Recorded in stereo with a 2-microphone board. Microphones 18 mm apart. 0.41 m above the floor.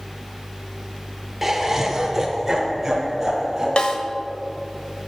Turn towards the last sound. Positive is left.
turn(degrees=60)  # may be behind; listen again after turning